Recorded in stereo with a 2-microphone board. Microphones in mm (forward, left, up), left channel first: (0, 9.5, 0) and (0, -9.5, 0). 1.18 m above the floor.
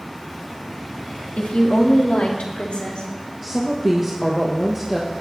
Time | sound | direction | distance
1.4 | a woman speaking | 85° left | 1.6 m
3.4 | a woman speaking | 15° right (ahead or behind) | 1.4 m